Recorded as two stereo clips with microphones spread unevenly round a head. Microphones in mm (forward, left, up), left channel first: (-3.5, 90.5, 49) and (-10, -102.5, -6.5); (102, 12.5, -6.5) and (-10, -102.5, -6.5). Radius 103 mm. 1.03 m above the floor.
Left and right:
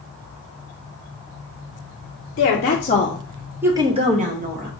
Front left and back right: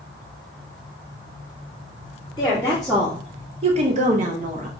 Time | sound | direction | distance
2.4 | a woman speaking | 115° left | 0.9 m